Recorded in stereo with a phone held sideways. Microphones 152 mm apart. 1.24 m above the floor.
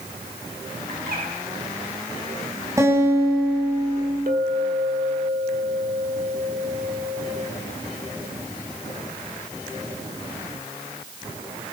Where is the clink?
65° right (ahead or behind), 2.5 m.